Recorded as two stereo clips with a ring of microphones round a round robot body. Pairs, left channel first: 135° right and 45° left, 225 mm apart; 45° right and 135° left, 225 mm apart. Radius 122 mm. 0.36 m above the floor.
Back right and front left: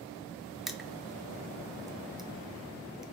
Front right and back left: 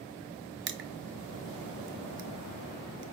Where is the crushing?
135° left, 0.7 m.